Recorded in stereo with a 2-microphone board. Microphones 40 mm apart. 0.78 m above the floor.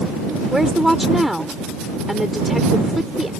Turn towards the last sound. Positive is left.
turn(degrees=-5)  # may be behind; listen again after turning